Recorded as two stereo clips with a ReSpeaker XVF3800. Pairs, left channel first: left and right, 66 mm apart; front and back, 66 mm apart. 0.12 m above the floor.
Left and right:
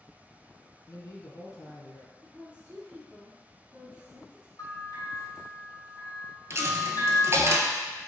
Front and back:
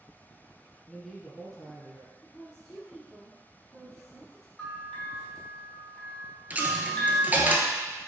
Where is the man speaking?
80° left, 2 m.